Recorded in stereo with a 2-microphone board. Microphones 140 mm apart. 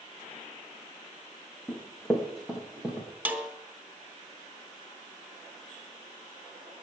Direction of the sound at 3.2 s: 10° right (ahead or behind).